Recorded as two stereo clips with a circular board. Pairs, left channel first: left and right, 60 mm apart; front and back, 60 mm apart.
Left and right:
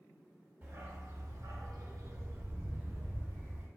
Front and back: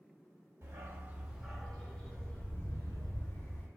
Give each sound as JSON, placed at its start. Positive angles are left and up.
{"t": 0.6, "sound": "a dog barking", "azimuth_deg": -140, "distance_m": 0.6}